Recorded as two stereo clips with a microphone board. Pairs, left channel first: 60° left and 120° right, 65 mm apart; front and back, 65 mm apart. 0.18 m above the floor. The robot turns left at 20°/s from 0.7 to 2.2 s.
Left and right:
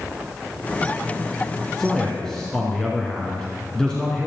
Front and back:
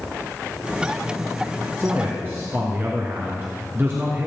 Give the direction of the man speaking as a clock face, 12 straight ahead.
7 o'clock.